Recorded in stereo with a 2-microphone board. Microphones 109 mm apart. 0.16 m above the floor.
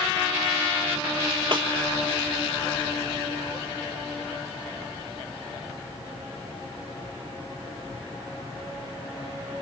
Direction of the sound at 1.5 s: 50° right (ahead or behind).